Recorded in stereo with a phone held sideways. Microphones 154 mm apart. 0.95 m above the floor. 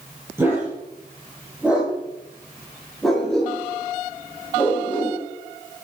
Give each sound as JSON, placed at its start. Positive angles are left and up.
{"t": 0.4, "sound": "a dog barking", "side_deg": -15, "distance_m": 8.5}